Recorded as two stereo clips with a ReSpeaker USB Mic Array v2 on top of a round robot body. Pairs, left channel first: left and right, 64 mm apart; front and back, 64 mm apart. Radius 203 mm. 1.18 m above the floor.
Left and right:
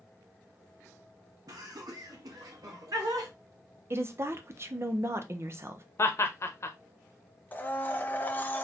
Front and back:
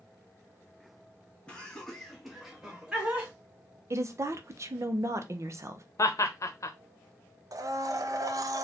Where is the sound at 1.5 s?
70° right, 1.7 m; by 3.3 s 105° right, 2 m.